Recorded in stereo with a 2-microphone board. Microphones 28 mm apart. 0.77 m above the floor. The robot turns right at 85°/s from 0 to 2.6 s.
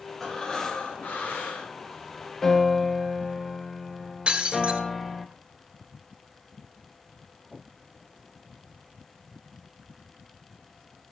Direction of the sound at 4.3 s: 40° right (ahead or behind).